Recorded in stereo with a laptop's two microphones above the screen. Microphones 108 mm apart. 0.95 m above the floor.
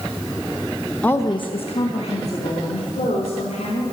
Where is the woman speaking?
10° left (ahead or behind), 0.6 m; by 3.8 s 85° left, 4.5 m.